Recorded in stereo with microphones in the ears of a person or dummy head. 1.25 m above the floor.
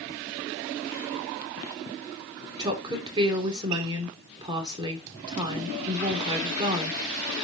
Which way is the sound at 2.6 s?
25° right (ahead or behind).